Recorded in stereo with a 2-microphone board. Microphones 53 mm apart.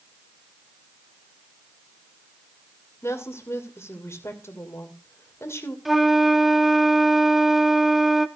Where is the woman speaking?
55° left (ahead or behind), 2.5 m.